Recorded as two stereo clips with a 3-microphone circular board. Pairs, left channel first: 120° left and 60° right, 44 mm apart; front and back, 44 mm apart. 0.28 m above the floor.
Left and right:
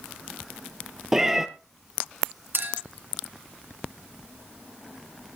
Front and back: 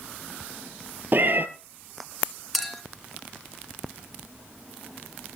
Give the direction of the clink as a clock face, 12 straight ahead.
3 o'clock.